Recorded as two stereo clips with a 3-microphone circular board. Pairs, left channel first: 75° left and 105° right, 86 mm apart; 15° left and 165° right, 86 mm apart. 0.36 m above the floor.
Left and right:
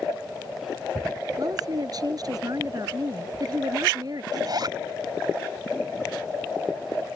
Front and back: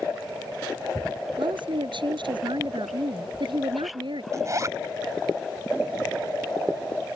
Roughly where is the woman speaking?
Behind right.